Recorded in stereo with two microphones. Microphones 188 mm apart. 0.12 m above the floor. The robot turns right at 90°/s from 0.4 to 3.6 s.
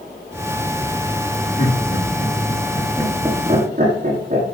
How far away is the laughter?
About 5 m.